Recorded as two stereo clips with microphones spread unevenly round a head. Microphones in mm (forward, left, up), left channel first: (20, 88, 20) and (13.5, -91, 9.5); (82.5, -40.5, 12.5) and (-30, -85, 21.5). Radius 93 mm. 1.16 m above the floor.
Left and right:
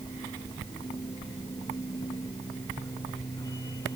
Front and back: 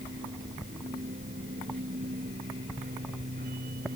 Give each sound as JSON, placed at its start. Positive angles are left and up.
{"t": 0.0, "sound": "a machine running", "azimuth_deg": 160}